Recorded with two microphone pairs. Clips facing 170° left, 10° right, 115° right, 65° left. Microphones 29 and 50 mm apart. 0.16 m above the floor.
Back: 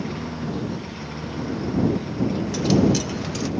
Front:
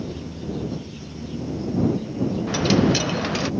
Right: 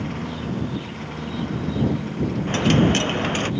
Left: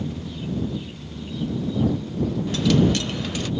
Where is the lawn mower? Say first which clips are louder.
Back 3 dB, right 2 dB; 150° right.